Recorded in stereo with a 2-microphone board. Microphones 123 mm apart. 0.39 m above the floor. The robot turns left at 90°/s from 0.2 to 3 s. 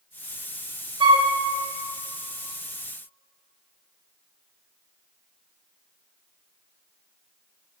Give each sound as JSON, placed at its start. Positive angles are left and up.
{"t": 1.0, "sound": "a flute", "side_deg": -40, "distance_m": 0.7}